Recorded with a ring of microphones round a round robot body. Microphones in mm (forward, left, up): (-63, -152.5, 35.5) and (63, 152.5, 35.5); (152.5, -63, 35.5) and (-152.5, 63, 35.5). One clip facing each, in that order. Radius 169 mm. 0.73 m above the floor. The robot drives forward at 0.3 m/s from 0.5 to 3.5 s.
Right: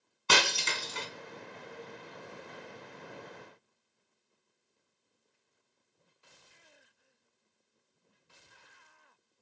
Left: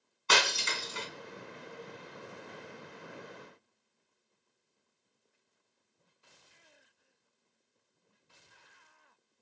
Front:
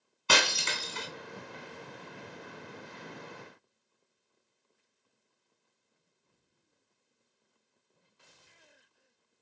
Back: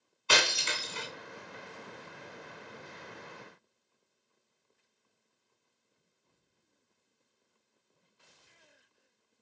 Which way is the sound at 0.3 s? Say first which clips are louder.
Right 1 dB, front 1 dB; 60° right.